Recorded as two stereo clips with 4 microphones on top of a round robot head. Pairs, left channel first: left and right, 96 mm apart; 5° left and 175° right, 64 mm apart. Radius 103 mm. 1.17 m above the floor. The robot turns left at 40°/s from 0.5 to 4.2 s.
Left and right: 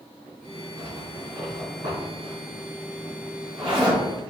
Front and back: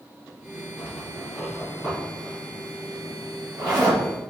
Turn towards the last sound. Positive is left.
turn(degrees=165)